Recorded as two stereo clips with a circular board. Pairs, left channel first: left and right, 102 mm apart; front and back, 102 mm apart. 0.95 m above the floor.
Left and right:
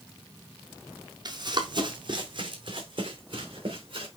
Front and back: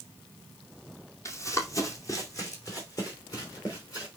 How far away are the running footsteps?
About 1.7 m.